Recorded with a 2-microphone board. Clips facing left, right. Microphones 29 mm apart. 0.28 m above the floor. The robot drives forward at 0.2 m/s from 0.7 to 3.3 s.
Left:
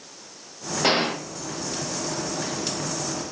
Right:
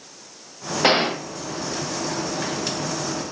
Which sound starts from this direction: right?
A gunshot, at 0.8 s.